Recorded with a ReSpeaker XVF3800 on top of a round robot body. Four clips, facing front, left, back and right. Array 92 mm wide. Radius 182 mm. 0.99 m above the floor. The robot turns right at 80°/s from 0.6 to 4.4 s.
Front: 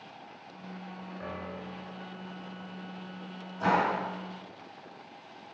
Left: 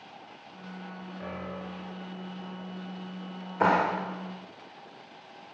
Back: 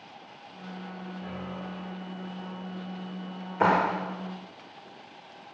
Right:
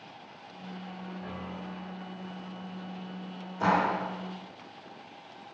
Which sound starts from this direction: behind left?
A clap, at 3.6 s.